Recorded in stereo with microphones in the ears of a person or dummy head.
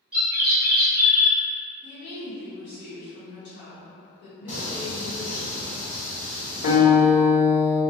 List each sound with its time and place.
0.1 s a bird: 5° right (ahead or behind), 1.0 m
1.8 s a woman speaking: 70° left (ahead or behind), 1.4 m
4.5 s singing: 5° right (ahead or behind), 1.5 m
6.6 s a guitar: 70° left (ahead or behind), 1.3 m